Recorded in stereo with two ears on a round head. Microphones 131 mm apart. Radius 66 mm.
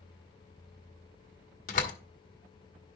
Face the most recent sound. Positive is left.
turn(degrees=55)  # may be behind; listen again after turning